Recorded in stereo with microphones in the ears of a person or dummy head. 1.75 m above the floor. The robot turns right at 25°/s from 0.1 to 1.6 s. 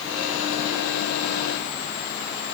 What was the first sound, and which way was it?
Only background noise.